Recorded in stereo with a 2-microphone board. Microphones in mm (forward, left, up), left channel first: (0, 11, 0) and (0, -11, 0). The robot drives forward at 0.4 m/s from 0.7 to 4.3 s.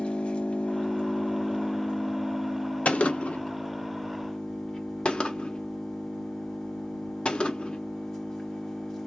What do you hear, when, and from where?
0.0 s an engine running: 55° left (ahead or behind), 0.9 m; by 9.1 s 20° left (ahead or behind), 2.0 m
2.9 s a gunshot: 80° left, 0.7 m; by 7.8 s 50° left (ahead or behind), 0.8 m